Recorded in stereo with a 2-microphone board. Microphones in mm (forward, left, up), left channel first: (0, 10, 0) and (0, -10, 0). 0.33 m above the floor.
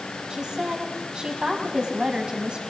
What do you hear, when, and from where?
0.3 s a woman speaking: 45° right (ahead or behind), 3 m